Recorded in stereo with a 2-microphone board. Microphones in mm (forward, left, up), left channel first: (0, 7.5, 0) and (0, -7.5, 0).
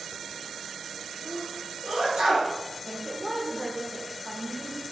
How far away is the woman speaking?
About 0.7 m.